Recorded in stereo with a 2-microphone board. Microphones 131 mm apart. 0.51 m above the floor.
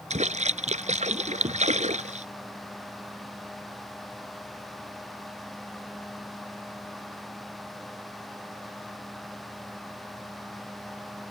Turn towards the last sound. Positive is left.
turn(degrees=-60)  # may be behind; listen again after turning